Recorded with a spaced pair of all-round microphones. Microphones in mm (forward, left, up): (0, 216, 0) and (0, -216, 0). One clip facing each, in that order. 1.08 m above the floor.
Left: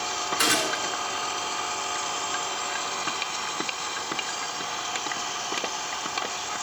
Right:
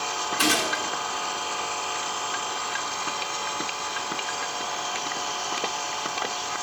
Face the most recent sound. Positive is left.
turn(degrees=-45)  # may be behind; listen again after turning